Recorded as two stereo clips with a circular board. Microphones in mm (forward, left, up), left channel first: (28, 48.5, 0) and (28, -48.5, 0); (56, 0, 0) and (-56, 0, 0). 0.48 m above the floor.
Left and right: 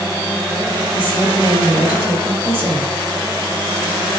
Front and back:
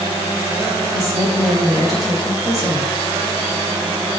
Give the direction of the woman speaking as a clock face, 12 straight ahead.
3 o'clock.